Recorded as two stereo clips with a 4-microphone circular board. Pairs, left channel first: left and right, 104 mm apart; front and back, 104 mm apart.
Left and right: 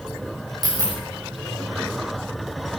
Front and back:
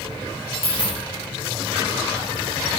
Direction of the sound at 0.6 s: 40° right.